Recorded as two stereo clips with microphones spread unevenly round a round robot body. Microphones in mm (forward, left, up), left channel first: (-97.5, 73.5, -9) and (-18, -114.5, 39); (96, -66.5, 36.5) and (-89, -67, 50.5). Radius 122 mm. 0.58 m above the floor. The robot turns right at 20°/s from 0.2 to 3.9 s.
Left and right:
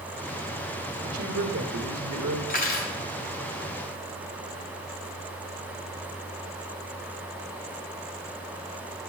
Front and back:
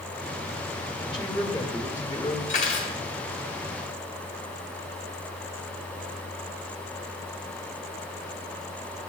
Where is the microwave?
No microwave in this recording.